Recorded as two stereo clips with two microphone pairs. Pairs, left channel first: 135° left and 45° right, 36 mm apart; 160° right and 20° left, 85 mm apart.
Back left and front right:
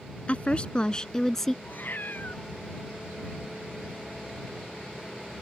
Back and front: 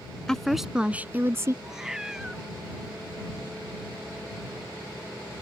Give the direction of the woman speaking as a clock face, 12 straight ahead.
8 o'clock.